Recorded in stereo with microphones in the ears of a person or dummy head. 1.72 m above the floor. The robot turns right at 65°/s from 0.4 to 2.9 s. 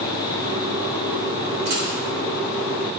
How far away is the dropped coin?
About 1.9 m.